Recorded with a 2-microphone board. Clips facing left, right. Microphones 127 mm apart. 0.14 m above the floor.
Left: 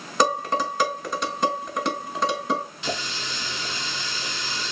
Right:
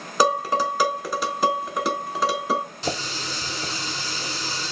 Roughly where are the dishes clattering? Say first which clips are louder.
Right 2 dB; centre.